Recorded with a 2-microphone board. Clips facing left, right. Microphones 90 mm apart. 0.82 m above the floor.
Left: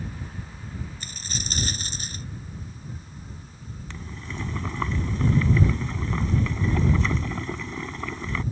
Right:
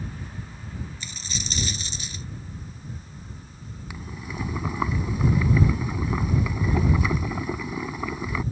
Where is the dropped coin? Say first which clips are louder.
Even; 50° left (ahead or behind).